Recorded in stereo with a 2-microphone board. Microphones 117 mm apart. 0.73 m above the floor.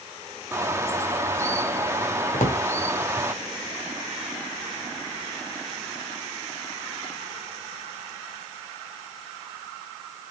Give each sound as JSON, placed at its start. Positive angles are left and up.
{"t": 0.5, "sound": "a bird", "side_deg": -20, "distance_m": 0.9}
{"t": 2.3, "sound": "a drawer", "side_deg": 85, "distance_m": 1.4}